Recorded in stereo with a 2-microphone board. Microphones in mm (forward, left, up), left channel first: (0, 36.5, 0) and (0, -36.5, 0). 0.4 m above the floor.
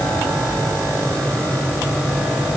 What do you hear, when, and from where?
Only background noise.